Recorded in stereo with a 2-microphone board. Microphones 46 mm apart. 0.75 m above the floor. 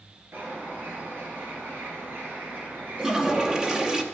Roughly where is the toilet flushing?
Centre.